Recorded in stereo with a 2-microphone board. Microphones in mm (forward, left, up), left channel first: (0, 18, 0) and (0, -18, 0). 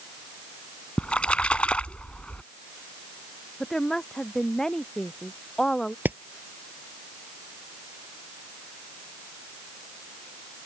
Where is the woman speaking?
15° left (ahead or behind).